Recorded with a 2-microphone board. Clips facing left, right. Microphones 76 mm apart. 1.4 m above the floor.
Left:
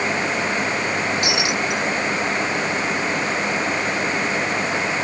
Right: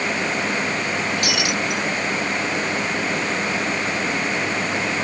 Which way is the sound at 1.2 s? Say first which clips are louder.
Left 1 dB; 20° left (ahead or behind).